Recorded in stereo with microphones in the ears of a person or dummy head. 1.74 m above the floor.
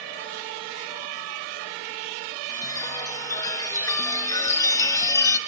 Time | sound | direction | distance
2.5 | a chime | 15° left (ahead or behind) | 0.6 m